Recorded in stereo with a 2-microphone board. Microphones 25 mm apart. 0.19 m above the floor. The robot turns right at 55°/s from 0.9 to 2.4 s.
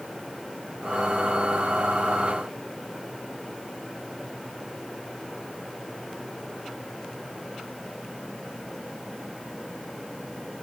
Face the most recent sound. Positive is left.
No sound to turn to.